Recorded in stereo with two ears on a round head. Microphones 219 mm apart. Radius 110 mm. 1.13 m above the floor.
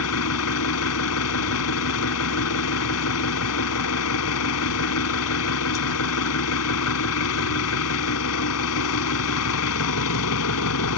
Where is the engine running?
65° left (ahead or behind).